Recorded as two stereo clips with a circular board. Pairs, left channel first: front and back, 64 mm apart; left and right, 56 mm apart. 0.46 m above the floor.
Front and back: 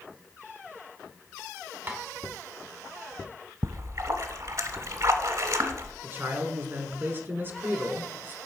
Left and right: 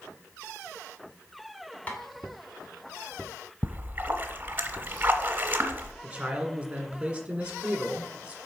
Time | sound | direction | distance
1.9 | tapping | 140° left | 1.6 m
3.6 | a splash | 150° right | 0.9 m
6.0 | a man speaking | 150° right | 1.5 m